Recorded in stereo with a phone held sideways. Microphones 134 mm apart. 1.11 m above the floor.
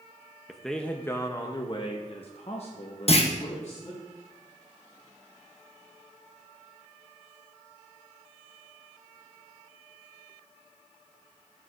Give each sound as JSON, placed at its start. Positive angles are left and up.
{"t": 0.5, "sound": "a man speaking", "side_deg": 0, "distance_m": 0.7}
{"t": 3.1, "sound": "a clunk", "side_deg": 50, "distance_m": 0.8}